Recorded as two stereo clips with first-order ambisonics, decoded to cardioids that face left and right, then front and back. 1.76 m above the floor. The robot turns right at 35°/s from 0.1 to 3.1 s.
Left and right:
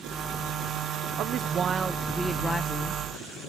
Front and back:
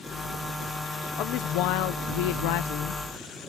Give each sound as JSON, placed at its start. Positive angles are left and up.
{"t": 1.2, "sound": "a woman speaking", "azimuth_deg": -40}